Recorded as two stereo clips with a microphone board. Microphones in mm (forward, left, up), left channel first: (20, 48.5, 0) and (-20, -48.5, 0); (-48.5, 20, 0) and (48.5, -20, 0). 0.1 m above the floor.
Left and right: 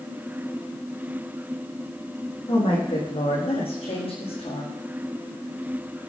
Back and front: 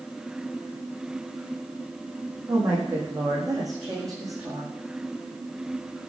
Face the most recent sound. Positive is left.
turn(degrees=35)